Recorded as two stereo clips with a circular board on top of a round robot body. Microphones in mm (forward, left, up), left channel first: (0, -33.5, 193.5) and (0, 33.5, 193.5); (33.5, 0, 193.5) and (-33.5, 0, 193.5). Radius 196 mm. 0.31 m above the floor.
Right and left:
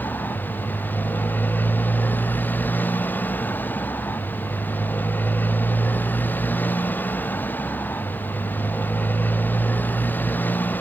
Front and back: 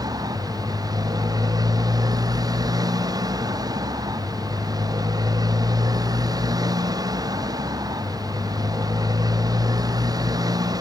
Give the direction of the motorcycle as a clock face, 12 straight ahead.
5 o'clock.